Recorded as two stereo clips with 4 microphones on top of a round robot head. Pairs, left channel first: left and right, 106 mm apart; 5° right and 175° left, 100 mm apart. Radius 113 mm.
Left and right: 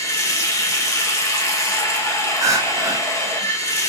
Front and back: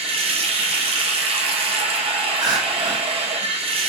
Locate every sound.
0.0 s running water: 155° left, 0.8 m
2.4 s crying: 145° right, 0.9 m